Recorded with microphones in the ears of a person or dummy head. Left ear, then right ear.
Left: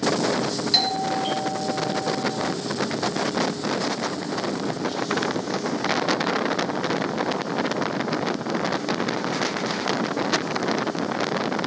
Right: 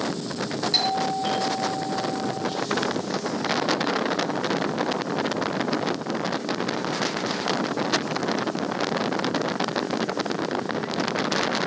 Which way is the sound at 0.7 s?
5° left (ahead or behind).